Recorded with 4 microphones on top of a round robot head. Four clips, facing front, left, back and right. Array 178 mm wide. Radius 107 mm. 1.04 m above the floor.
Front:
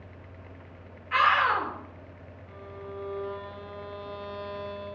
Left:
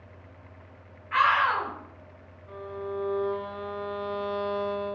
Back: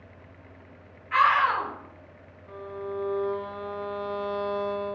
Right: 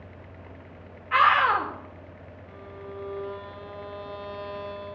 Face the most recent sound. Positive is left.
turn(degrees=140)